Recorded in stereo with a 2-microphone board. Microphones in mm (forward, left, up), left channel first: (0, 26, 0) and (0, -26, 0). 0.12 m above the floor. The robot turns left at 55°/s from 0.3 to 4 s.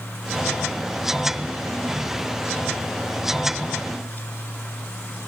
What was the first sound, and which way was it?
Only background noise.